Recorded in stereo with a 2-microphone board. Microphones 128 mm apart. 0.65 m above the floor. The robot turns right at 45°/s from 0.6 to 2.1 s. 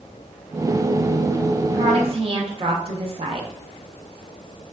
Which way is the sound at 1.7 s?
50° right (ahead or behind).